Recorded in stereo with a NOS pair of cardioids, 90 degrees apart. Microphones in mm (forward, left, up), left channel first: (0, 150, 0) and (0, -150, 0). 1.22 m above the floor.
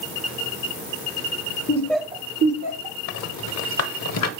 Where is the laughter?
25° left, 0.6 m; by 3.0 s 75° right, 0.8 m.